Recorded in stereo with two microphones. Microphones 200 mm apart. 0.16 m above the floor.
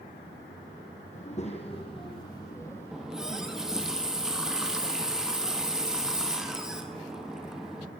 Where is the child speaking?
35° left (ahead or behind), 4.5 m; by 3.9 s 10° right (ahead or behind), 4 m.